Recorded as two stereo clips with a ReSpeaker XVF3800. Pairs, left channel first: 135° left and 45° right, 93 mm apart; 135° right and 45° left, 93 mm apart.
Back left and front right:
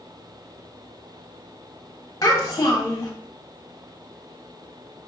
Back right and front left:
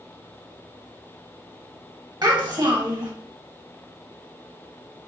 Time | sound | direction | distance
2.2 | a child speaking | 85° left | 1.0 m